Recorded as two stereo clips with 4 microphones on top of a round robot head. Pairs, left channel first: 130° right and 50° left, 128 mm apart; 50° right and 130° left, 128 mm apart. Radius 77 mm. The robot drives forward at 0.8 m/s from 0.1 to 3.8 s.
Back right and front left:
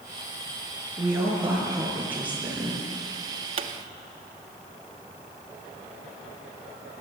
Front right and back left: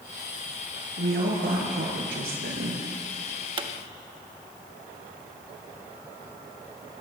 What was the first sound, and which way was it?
A woman speaking, 120° left.